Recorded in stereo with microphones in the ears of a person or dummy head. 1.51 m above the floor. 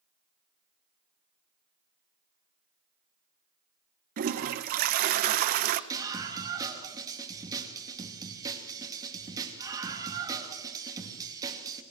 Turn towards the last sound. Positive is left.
turn(degrees=-20)  # may be behind; listen again after turning